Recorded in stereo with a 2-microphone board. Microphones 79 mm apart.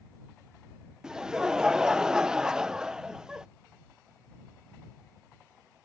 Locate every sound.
1.0 s laughter: 10° right (ahead or behind)